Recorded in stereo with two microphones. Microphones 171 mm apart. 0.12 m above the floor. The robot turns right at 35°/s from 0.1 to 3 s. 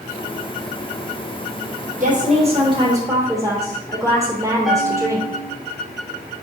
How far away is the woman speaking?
About 3 m.